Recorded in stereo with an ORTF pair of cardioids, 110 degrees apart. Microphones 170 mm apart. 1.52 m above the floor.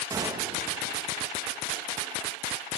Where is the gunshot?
20° right, 2.5 m.